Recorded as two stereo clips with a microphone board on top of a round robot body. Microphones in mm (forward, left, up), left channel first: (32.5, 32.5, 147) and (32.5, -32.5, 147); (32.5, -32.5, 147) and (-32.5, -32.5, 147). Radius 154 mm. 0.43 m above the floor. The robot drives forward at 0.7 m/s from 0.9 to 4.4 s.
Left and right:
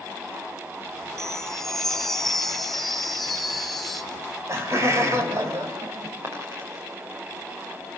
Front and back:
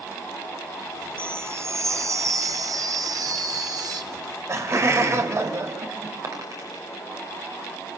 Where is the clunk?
No clunk in this recording.